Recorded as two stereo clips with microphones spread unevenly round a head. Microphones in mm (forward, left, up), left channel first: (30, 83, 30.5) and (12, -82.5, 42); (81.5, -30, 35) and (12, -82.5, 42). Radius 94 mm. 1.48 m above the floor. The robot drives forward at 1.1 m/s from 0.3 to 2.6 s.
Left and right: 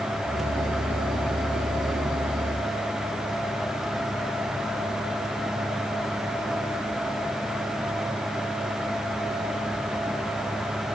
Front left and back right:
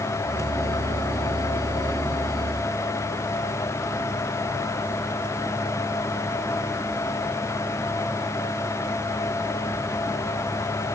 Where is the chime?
No chime in this recording.